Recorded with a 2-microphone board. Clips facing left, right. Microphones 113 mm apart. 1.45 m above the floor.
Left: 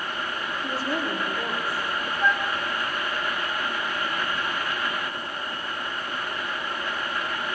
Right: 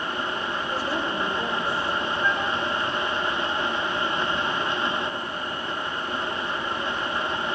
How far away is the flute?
About 3.5 m.